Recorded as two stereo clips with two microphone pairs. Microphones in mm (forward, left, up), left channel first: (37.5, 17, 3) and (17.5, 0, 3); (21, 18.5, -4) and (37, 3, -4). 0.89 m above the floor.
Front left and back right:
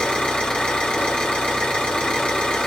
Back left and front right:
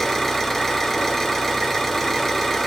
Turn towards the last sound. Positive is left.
turn(degrees=65)